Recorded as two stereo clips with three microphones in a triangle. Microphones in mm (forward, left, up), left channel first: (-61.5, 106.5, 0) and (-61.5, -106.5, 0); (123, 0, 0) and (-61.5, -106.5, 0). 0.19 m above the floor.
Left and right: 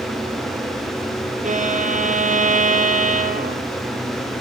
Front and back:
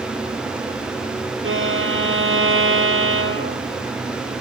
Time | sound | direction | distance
1.4 | a violin | 140° right | 3.5 m